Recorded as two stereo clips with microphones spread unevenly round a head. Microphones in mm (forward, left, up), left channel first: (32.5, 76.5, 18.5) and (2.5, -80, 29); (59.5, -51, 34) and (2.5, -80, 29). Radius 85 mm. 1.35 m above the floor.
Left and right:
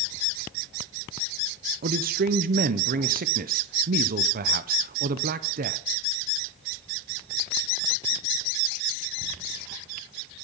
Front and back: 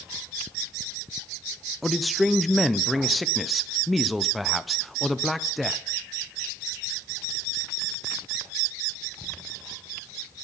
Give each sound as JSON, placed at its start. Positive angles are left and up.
{"t": 1.8, "sound": "a man speaking", "azimuth_deg": -65, "distance_m": 0.6}